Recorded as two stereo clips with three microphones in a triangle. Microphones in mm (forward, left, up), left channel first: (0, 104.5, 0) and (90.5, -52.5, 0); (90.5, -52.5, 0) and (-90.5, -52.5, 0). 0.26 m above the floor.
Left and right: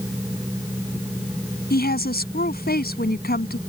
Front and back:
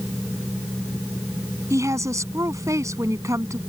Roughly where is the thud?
I don't hear a thud.